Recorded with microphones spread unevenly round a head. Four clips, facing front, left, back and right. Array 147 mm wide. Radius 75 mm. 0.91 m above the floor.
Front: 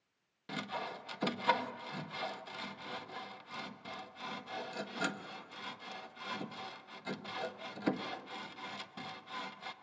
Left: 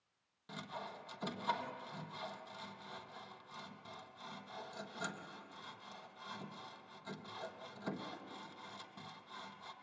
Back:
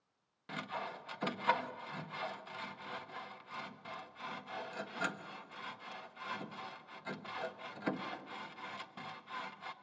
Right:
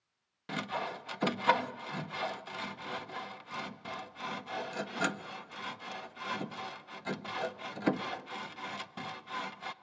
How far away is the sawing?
About 0.6 m.